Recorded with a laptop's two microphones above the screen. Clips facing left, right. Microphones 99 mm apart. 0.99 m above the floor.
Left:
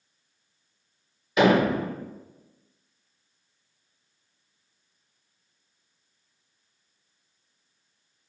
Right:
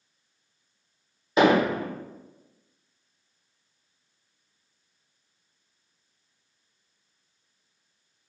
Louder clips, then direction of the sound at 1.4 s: Even; 30° right (ahead or behind).